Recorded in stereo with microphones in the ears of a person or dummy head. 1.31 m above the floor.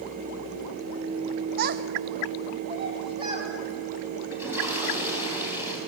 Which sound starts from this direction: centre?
A toilet flushing, at 4.3 s.